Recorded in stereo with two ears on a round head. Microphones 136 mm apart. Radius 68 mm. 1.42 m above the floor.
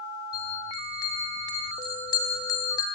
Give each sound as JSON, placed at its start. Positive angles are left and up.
{"t": 0.3, "sound": "a bell", "side_deg": 25, "distance_m": 2.5}